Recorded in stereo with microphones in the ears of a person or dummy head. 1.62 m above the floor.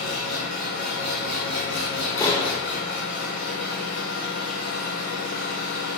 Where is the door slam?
15° left (ahead or behind), 0.5 m.